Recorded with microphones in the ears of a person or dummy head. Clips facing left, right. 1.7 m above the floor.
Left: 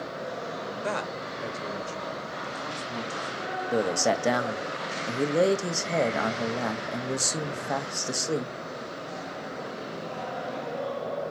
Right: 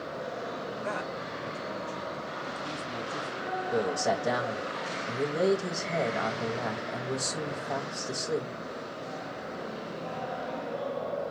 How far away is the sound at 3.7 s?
About 0.7 m.